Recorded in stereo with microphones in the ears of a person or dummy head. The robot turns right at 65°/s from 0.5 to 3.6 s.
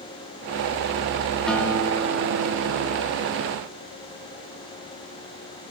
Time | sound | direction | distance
1.5 | a guitar | 5° left | 4.5 m